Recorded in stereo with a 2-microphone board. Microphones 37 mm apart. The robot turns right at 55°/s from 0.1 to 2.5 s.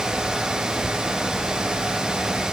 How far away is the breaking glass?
No breaking glass in this recording.